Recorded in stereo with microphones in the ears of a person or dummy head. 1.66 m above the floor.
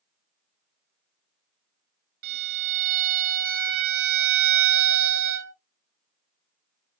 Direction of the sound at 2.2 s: 50° right (ahead or behind).